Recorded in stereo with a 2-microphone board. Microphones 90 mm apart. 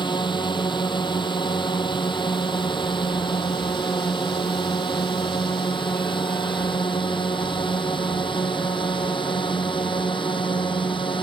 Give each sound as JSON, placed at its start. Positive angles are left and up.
{"t": 0.0, "sound": "a drone", "side_deg": 60}